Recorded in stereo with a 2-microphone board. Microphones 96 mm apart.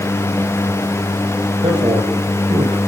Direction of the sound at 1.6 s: 75° right (ahead or behind).